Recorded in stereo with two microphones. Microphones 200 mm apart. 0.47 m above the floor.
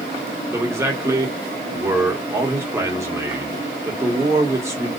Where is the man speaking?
15° right (ahead or behind), 1.1 m.